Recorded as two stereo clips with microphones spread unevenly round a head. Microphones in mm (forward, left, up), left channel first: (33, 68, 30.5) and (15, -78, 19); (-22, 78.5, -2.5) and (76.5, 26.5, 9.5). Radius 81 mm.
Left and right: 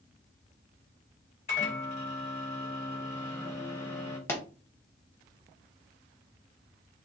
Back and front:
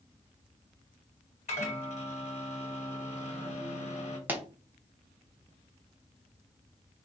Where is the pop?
25° left, 0.8 m.